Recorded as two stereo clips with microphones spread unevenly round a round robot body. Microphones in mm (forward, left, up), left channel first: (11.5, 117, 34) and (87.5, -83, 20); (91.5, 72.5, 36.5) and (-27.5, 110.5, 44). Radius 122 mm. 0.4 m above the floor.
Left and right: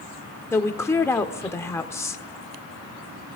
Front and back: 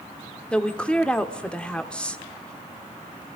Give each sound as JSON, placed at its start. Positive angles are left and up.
{"t": 0.5, "sound": "a woman speaking", "azimuth_deg": 45, "distance_m": 1.2}